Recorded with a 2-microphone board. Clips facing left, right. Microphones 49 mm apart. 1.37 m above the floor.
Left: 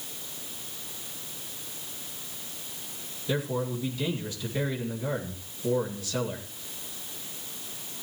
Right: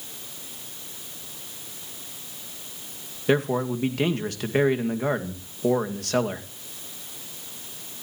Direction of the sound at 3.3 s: 60° right (ahead or behind).